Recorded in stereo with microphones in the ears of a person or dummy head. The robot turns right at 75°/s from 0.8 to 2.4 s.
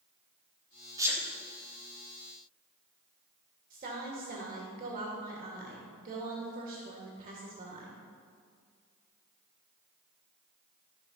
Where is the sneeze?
20° right (ahead or behind), 2.5 m; by 1.2 s centre (ahead or behind), 2.5 m.